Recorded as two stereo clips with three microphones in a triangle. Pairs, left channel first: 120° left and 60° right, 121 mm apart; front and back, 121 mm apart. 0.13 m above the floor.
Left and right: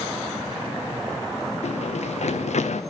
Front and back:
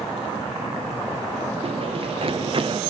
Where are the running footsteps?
145° left, 1.7 m; by 2.8 s 135° left, 1.0 m.